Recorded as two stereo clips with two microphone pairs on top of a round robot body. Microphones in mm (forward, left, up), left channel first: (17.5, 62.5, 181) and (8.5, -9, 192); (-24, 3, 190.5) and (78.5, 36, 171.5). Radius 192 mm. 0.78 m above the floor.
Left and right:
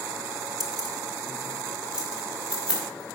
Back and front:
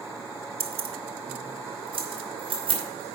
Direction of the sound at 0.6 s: 10° right.